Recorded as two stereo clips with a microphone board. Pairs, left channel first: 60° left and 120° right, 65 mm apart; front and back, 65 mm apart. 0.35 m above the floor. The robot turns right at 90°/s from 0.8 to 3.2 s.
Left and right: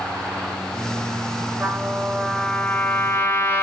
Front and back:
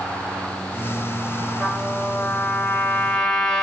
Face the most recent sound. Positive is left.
turn(degrees=70)